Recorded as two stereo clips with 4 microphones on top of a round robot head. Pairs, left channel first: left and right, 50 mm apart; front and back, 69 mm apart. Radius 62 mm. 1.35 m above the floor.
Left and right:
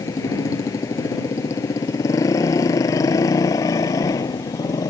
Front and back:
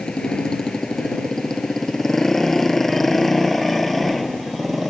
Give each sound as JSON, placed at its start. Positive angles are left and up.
{"t": 0.0, "sound": "a motorcycle", "azimuth_deg": 80}